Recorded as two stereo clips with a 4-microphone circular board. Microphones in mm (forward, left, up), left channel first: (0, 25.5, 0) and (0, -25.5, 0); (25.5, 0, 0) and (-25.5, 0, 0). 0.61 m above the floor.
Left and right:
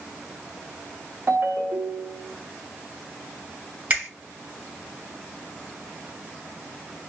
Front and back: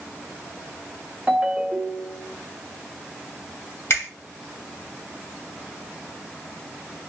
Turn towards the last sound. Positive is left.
turn(degrees=-40)